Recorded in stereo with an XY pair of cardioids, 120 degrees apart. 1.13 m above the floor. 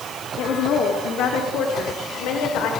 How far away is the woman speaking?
About 2.5 m.